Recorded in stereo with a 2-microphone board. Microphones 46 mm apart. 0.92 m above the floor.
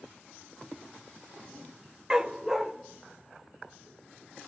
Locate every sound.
2.1 s a dog barking: 15° right (ahead or behind), 0.7 m; by 4.5 s 5° left (ahead or behind), 2 m